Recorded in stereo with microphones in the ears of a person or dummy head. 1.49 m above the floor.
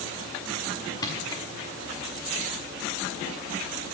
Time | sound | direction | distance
1.0 | crushing | 20° left (ahead or behind) | 1.6 m